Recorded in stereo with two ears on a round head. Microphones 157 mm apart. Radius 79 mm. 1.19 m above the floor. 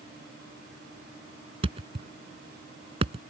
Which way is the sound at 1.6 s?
35° right (ahead or behind).